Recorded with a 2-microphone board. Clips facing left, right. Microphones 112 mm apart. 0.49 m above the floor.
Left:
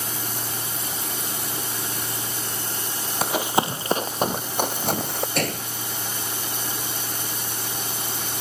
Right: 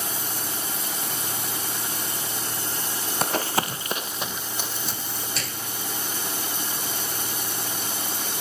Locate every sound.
3.2 s running footsteps: 5° left (ahead or behind); by 5.2 s 65° left (ahead or behind)
5.3 s a gunshot: 55° left (ahead or behind)